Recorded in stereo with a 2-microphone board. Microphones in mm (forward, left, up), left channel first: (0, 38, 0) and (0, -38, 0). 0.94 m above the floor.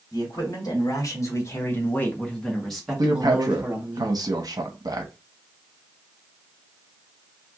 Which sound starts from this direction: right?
A man speaking, at 3.0 s.